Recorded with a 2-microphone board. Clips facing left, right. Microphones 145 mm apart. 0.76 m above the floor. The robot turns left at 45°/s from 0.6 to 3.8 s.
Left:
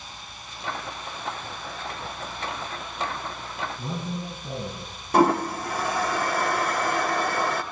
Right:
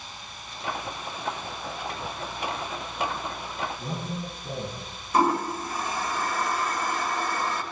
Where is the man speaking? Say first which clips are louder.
Left 1 dB; 55° left (ahead or behind), 7 m.